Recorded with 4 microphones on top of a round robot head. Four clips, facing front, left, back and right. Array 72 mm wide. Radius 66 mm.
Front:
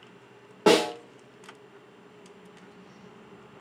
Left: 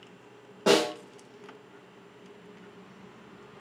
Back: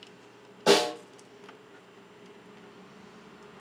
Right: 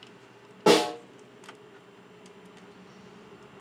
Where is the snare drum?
Straight ahead, 1.6 m.